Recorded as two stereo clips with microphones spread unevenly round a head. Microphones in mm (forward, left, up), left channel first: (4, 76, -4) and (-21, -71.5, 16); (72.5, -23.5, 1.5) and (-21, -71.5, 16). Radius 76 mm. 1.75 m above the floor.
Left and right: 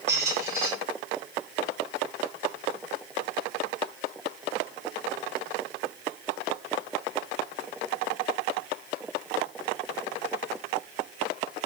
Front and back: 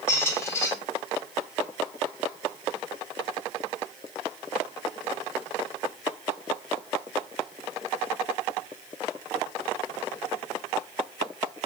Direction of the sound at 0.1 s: 40° right.